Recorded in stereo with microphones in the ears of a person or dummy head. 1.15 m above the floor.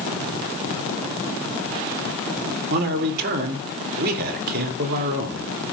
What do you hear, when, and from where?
2.7 s a man speaking: 55° right (ahead or behind), 2.5 m